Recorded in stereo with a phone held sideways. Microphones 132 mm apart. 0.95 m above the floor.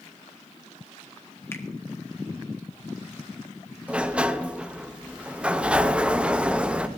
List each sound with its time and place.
1.5 s a finger snap: 20° left (ahead or behind), 1.4 m
3.9 s a sliding door: 10° right (ahead or behind), 0.7 m